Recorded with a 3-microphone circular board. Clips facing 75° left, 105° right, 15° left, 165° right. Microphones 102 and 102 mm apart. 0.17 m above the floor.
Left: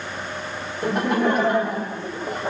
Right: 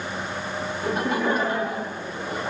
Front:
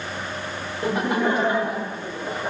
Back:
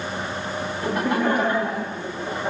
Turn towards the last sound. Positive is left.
turn(degrees=90)